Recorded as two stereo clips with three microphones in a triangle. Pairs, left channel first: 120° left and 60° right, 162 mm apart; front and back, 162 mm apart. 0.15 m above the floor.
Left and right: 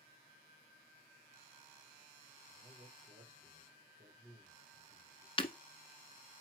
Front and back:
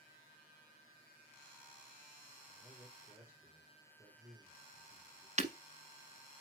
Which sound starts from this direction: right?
A man speaking, at 2.5 s.